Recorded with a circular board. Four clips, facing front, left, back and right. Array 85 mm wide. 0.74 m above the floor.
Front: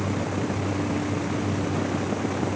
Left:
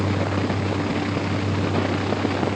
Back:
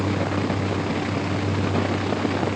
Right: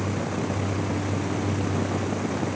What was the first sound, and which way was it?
Only background noise.